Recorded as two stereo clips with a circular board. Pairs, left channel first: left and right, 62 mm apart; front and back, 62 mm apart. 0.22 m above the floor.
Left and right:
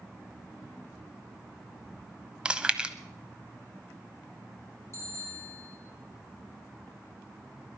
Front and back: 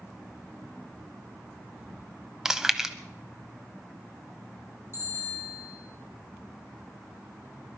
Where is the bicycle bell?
130° right, 7 m.